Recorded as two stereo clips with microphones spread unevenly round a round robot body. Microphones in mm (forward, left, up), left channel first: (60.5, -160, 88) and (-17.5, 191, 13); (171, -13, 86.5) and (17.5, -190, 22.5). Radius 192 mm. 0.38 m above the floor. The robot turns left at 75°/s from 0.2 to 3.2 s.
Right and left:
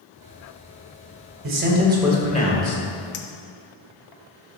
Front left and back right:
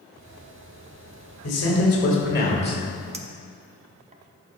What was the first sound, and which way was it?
A man speaking, 70° left.